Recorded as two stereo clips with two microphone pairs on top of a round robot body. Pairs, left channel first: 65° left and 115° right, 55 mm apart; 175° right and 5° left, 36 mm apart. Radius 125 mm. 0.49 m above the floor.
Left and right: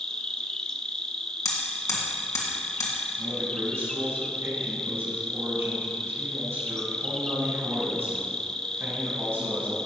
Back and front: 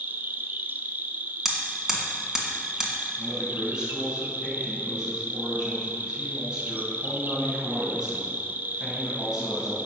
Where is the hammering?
80° left, 1.9 m.